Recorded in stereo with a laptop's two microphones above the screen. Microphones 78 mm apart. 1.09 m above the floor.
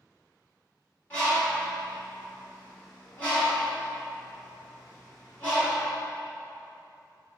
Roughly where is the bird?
Left.